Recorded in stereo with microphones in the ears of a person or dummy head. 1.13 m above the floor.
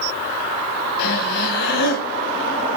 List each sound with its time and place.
1.0 s breathing: 65° left (ahead or behind), 1.9 m